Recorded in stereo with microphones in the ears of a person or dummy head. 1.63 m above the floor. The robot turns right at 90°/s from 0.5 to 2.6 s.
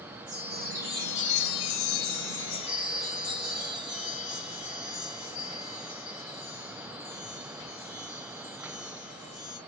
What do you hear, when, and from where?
0.3 s a chime: 35° right, 1.8 m; by 9.6 s 155° left, 1.8 m